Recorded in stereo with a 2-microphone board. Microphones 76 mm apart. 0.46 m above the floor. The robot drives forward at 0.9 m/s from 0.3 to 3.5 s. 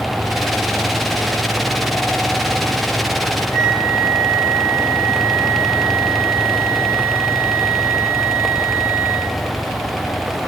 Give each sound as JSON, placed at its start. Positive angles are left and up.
{"t": 3.5, "sound": "a flute", "side_deg": 15, "distance_m": 5.0}